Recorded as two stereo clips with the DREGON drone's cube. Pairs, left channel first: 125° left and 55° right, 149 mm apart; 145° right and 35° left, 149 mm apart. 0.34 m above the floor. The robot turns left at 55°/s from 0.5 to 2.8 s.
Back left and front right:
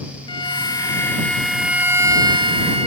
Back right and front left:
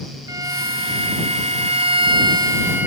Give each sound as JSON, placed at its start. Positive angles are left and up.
{"t": 0.3, "sound": "a violin", "azimuth_deg": 90}